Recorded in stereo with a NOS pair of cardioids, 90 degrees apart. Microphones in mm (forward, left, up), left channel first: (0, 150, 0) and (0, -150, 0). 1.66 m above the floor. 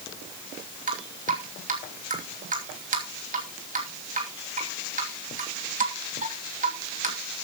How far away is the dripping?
About 3 m.